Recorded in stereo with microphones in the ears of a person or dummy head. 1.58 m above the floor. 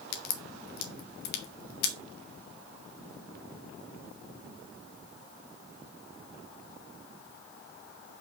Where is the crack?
55° left (ahead or behind), 1.4 m.